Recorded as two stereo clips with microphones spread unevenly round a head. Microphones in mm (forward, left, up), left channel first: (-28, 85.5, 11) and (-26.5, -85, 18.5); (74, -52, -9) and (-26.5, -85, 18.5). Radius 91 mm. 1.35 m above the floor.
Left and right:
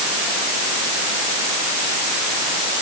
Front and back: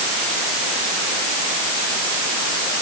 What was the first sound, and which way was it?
Only background noise.